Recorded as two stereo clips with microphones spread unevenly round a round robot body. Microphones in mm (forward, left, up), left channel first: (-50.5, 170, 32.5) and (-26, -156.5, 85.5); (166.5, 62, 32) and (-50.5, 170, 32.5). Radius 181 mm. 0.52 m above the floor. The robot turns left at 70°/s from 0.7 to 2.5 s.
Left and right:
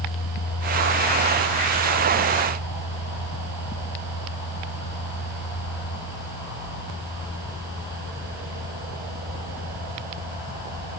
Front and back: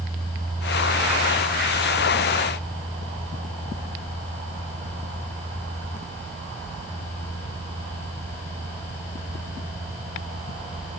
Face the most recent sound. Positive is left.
No sound to turn to.